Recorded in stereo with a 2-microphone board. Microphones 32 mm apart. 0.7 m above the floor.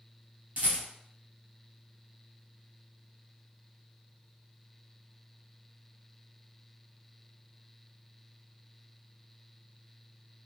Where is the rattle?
60° right (ahead or behind), 2.0 m.